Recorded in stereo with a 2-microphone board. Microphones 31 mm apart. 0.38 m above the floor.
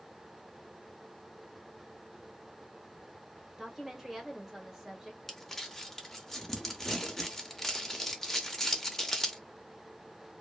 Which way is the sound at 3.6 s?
10° right (ahead or behind).